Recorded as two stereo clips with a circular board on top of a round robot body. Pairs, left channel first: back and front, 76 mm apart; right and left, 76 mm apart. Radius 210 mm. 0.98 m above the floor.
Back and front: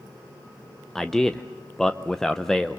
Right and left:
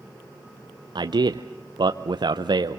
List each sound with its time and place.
0.9 s a man speaking: 95° left, 0.8 m